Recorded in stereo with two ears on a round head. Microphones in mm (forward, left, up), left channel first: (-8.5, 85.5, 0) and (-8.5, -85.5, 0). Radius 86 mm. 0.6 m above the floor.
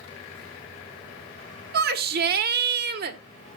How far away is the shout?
About 1.4 m.